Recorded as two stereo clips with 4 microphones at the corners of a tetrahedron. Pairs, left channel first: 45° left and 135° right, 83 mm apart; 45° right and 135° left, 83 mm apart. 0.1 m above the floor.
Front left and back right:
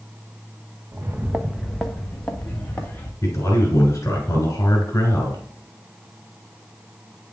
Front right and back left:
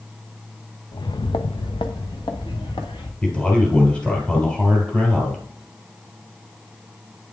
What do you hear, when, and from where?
0.9 s footsteps: 85° right, 0.6 m; by 3.1 s 25° right, 2 m
3.2 s a man speaking: 25° left, 2 m